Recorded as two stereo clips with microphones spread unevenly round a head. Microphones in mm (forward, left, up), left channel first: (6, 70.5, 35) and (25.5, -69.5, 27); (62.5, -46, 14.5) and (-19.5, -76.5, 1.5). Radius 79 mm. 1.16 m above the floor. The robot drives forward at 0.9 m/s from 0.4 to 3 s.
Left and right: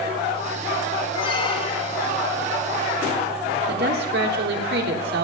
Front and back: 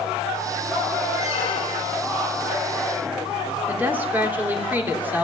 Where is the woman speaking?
90° right, 3.5 m.